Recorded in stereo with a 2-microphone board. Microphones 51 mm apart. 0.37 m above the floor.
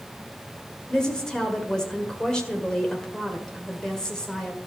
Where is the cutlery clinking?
I don't hear cutlery clinking.